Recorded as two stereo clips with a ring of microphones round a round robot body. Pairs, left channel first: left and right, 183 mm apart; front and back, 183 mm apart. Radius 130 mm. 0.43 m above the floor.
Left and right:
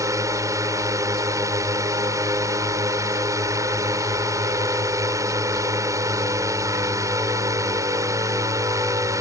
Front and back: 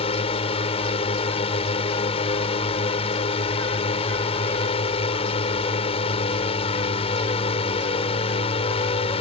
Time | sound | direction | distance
0.0 | a drone | 30° right | ?